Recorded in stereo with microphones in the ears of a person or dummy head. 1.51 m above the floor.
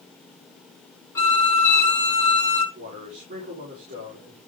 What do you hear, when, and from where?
1.1 s a violin: 20° left (ahead or behind), 2 m
2.8 s a man speaking: 45° right (ahead or behind), 4.5 m